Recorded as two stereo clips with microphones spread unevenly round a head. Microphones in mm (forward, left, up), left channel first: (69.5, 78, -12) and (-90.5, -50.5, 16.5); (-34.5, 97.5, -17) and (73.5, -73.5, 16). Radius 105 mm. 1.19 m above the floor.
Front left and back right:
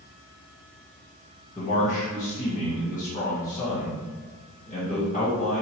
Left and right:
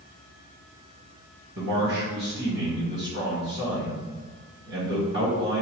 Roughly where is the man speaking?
Ahead right.